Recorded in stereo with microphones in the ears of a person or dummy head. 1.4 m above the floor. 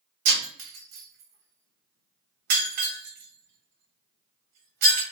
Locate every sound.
0.2 s breaking glass: 45° right (ahead or behind), 1.4 m